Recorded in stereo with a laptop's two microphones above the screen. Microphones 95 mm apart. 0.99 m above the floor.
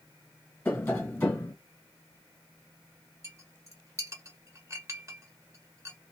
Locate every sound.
0.7 s tapping: 20° left (ahead or behind), 1.2 m
3.2 s a clink: 35° right (ahead or behind), 1.3 m